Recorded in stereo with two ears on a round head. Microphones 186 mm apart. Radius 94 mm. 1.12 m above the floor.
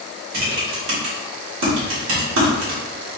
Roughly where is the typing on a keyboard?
Right.